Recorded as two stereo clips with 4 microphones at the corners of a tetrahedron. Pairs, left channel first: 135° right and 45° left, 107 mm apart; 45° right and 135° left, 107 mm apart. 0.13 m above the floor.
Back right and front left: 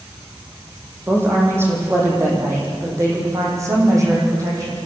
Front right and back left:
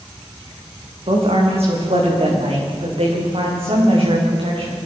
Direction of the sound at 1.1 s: 115° left.